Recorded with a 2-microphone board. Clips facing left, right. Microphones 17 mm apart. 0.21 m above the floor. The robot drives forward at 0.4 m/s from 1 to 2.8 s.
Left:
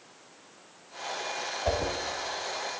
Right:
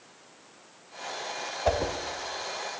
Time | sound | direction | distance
1.6 | a whoosh | 30° right (ahead or behind) | 0.5 m